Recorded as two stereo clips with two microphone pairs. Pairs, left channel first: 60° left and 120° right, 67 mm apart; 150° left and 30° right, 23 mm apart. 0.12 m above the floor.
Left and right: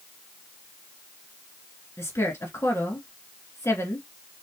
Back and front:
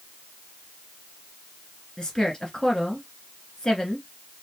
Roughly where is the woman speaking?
Left.